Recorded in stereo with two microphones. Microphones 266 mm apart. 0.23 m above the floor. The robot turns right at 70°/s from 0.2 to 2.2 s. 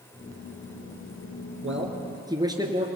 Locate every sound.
1.6 s a man speaking: 55° right, 3 m; by 2.9 s 15° right, 3 m